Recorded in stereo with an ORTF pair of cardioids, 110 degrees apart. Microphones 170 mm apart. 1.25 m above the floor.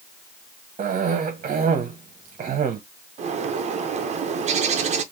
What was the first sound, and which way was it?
A cough, 45° right.